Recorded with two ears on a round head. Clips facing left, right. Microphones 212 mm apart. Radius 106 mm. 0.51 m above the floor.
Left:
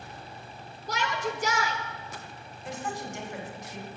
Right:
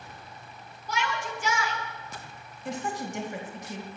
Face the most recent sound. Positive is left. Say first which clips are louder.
# right 3 dB
turn(degrees=-70)  # may be behind; listen again after turning